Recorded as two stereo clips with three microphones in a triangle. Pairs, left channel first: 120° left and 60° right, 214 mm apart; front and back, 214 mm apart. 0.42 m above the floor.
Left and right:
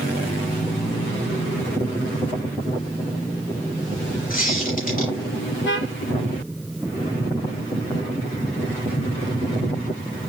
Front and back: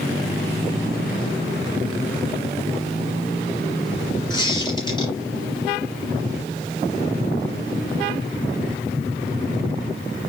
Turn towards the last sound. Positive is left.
turn(degrees=70)